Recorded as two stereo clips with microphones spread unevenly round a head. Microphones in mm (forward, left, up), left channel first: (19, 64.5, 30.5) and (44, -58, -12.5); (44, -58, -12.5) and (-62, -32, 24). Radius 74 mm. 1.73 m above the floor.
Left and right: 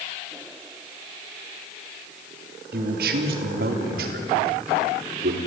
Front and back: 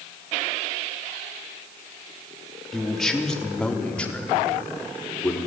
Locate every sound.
2.7 s a man speaking: 105° right, 3.5 m; by 5.4 s 90° right, 5 m